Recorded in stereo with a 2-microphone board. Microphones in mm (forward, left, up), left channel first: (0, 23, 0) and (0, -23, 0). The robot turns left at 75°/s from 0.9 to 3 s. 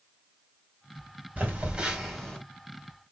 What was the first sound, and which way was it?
A phone buzzing, 120° right.